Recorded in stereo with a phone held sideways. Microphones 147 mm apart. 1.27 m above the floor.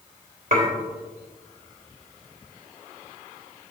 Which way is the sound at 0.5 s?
65° right (ahead or behind).